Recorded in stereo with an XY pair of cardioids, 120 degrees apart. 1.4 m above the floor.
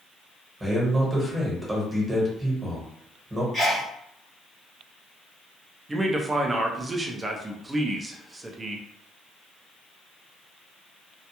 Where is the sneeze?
20° right, 1.4 m.